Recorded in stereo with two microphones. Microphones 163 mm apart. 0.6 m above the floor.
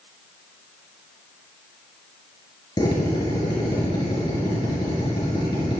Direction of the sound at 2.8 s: 30° left (ahead or behind).